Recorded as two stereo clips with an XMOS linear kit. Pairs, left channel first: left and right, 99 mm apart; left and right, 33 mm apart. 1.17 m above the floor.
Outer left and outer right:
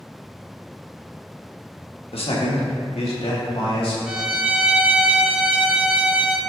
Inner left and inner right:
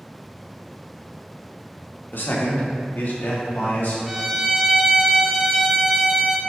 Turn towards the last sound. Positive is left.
turn(degrees=-10)  # may be behind; listen again after turning